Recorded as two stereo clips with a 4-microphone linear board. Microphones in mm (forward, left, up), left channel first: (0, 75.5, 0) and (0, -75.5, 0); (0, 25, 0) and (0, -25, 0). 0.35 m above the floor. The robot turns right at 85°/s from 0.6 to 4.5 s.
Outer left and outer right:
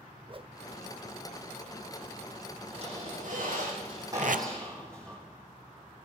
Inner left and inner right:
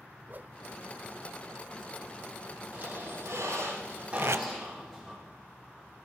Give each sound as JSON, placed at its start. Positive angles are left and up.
{"t": 0.3, "sound": "a whoosh", "side_deg": -40, "distance_m": 0.5}
{"t": 2.7, "sound": "a squeak", "azimuth_deg": -145, "distance_m": 8.5}
{"t": 4.2, "sound": "tape being pulled", "side_deg": -55, "distance_m": 0.5}